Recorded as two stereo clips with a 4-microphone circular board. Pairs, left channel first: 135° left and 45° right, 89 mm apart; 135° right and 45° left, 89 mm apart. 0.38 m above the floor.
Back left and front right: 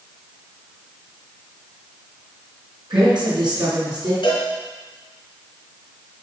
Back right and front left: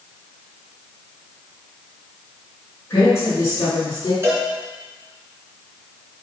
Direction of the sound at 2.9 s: 75° right.